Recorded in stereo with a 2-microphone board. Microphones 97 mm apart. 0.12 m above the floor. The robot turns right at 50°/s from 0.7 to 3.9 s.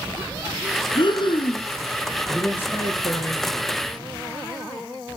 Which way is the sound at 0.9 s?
75° left.